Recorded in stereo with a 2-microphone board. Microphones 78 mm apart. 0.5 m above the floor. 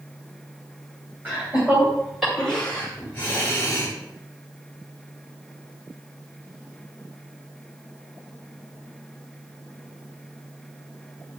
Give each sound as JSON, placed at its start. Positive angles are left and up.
{"t": 1.2, "sound": "laughter", "side_deg": -20, "distance_m": 3.0}